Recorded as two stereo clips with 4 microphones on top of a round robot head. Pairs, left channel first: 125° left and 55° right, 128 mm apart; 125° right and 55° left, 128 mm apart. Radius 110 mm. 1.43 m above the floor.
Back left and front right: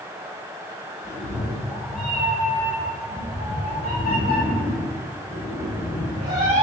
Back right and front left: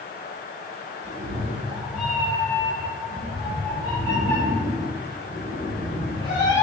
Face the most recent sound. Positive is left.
turn(degrees=-70)